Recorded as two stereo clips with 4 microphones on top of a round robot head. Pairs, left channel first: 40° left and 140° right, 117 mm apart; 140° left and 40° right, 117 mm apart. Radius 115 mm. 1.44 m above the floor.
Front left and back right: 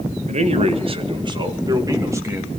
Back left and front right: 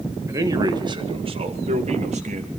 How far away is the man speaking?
About 2 m.